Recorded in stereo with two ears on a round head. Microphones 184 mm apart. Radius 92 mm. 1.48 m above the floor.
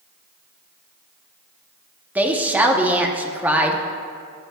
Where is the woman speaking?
10° right (ahead or behind), 1.1 m.